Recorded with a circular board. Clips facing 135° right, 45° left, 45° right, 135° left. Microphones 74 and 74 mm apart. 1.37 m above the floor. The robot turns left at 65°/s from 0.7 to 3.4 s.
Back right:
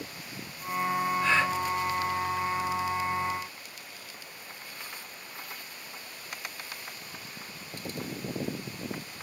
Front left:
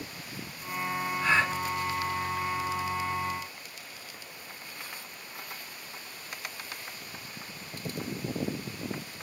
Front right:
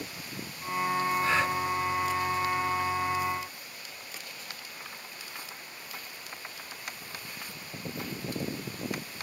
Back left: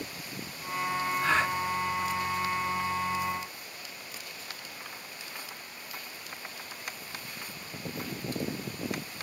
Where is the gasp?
130° left, 8.5 m; by 1.6 s 110° left, 8.5 m.